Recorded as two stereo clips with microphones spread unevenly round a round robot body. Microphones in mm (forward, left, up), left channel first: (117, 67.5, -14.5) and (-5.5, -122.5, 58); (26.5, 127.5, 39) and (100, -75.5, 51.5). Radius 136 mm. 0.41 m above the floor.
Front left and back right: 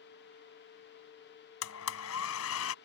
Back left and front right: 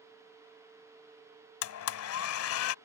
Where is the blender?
95° left.